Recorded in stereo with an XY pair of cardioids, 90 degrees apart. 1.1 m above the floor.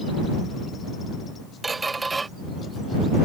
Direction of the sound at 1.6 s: 30° right.